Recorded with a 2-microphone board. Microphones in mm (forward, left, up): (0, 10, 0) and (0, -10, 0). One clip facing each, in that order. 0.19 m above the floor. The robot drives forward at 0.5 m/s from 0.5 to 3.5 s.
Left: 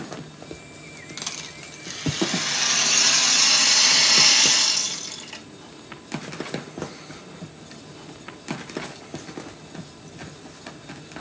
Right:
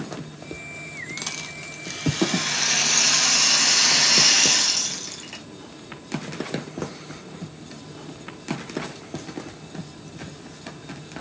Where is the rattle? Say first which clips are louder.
Left 2 dB; 5° right (ahead or behind), 0.8 m; by 5.4 s centre (ahead or behind), 1.8 m.